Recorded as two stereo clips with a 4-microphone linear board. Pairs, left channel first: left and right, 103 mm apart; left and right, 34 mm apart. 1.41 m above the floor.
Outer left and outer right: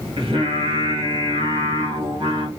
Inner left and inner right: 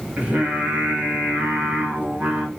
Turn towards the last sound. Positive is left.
turn(degrees=-65)  # may be behind; listen again after turning